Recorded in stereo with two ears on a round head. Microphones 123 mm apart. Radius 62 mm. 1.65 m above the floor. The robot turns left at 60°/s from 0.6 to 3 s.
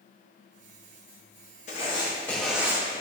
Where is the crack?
No crack in this recording.